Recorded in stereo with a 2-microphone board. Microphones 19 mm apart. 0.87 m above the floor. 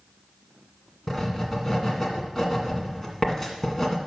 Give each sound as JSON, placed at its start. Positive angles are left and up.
{"t": 1.1, "sound": "writing", "side_deg": 10, "distance_m": 1.8}